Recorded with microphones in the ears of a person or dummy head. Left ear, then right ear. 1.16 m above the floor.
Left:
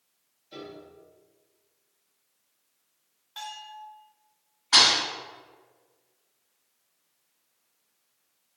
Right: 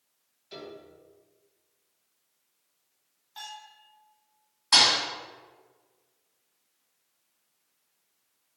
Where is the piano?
45° right (ahead or behind), 0.7 m.